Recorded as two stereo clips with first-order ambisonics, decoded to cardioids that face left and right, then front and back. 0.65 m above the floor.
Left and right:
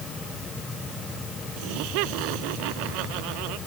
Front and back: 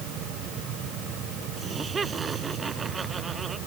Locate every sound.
1.6 s laughter: 105° right